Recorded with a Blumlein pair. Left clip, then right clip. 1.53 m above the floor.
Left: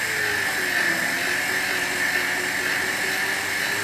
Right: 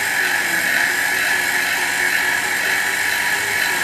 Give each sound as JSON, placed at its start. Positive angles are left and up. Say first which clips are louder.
{"t": 0.0, "sound": "a machine running", "louder": "right 5 dB", "azimuth_deg": -35, "distance_m": 1.2}